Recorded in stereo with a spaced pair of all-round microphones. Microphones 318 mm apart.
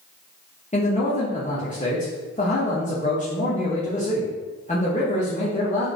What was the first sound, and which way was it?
A man speaking, 25° left (ahead or behind).